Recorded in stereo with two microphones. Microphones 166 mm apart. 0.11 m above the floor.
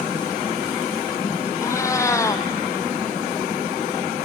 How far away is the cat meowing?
About 1.1 m.